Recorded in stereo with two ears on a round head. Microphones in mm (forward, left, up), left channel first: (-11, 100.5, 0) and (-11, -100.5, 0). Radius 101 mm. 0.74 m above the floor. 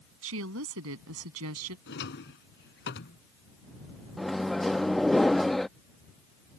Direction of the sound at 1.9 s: 55° left (ahead or behind).